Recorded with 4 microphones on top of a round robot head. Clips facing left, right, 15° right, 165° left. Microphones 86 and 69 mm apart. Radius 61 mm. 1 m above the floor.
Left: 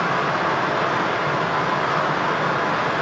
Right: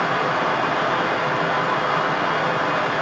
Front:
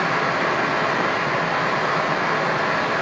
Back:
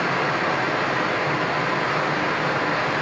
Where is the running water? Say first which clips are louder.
Even, front 1 dB; 25° left, 1.4 m.